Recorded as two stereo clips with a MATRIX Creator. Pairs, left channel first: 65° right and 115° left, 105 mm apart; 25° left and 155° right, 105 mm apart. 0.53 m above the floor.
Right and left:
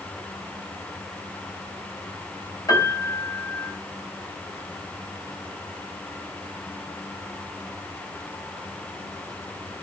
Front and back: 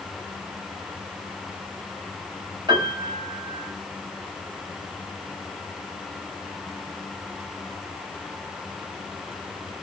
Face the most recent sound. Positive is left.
turn(degrees=-120)